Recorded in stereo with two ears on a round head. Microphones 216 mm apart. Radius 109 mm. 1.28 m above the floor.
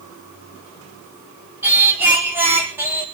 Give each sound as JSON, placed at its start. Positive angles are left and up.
{"t": 1.6, "sound": "singing", "side_deg": -10, "distance_m": 3.5}